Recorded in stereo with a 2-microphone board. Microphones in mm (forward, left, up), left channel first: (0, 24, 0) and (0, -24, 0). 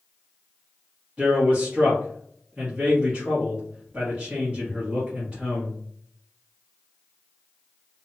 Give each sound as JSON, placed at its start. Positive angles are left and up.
{"t": 1.2, "sound": "a man speaking", "side_deg": -25, "distance_m": 1.3}